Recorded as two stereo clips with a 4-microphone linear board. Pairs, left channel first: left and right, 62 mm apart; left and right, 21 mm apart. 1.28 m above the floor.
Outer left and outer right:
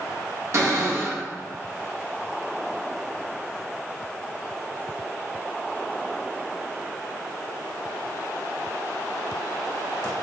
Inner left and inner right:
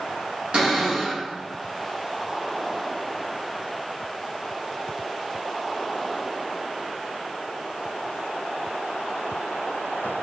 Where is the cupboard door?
50° right (ahead or behind), 1.4 m.